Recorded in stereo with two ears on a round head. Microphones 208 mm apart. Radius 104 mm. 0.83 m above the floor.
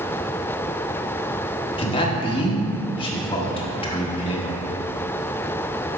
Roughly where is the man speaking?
Left.